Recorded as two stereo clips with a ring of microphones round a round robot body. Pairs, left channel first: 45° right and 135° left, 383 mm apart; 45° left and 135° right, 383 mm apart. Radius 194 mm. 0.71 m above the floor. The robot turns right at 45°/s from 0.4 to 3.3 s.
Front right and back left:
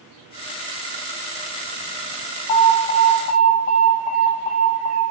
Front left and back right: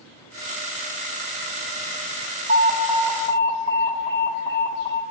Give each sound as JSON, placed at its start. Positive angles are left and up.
{"t": 2.5, "sound": "an alarm", "azimuth_deg": -65, "distance_m": 0.9}